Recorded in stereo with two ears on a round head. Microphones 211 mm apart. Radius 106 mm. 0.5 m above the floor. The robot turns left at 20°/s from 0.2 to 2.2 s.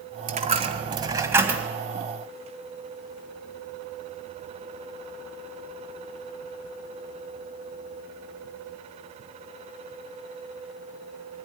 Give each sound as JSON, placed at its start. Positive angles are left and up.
{"t": 0.3, "sound": "a dropped coin", "side_deg": -30, "distance_m": 1.7}